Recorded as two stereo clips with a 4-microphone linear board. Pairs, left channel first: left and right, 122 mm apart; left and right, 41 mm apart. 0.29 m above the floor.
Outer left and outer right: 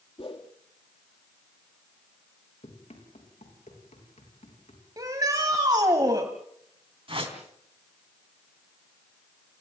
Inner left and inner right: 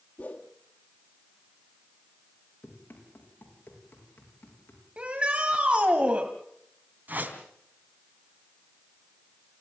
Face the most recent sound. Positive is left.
turn(degrees=-50)  # may be behind; listen again after turning